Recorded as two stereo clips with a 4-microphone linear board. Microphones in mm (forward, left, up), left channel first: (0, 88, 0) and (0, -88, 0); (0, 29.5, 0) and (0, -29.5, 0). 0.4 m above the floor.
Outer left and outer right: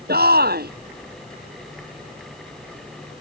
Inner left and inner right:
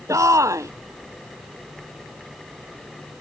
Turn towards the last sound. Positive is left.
turn(degrees=-70)  # may be behind; listen again after turning